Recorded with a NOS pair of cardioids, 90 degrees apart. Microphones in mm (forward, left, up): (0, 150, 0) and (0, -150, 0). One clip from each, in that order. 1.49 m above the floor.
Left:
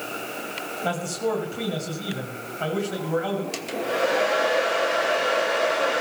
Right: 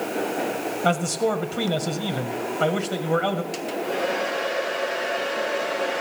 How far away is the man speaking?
About 1.9 m.